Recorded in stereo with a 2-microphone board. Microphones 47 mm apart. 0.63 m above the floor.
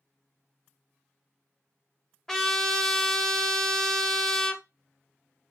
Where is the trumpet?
10° left (ahead or behind), 0.5 m.